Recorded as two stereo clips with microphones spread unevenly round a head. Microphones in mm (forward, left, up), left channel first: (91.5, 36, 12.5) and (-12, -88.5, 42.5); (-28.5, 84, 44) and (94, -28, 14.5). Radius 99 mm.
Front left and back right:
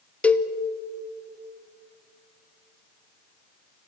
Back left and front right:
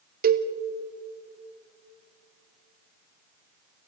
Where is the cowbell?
30° right, 1.2 m.